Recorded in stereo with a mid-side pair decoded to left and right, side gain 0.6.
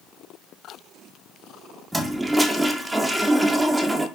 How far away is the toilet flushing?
About 0.6 m.